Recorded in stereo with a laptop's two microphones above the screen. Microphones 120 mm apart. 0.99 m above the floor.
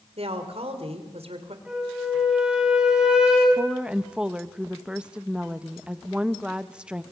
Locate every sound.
0.2 s a woman speaking: 65° right (ahead or behind), 3 m
1.6 s a flute: 5° right (ahead or behind), 6.5 m
3.6 s a woman speaking: 10° right (ahead or behind), 0.9 m